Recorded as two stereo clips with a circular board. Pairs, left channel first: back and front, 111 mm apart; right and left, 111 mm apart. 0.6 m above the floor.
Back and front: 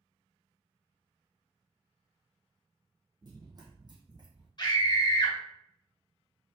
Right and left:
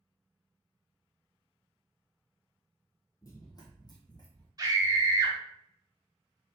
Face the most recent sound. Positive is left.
turn(degrees=140)